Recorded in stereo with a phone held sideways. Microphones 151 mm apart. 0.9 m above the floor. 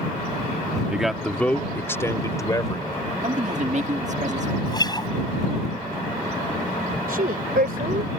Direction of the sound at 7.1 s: 75° right (ahead or behind).